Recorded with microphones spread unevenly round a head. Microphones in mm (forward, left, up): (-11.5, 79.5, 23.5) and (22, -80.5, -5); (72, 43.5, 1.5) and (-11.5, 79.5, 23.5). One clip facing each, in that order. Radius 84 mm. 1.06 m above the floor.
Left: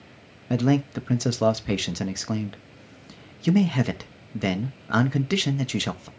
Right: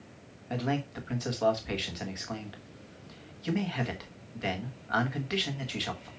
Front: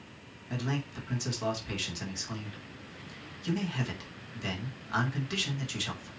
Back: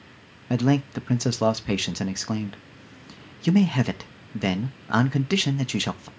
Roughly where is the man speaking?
Behind left.